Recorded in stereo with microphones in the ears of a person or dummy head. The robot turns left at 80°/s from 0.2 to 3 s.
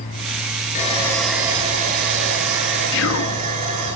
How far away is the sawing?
About 8.5 m.